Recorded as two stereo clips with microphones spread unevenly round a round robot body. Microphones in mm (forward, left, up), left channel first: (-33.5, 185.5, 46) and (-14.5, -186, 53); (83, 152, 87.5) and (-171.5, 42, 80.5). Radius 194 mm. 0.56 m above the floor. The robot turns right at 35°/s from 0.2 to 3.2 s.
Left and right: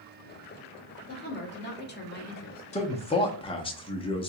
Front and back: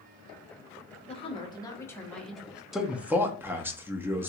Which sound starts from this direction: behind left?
A man speaking, at 2.7 s.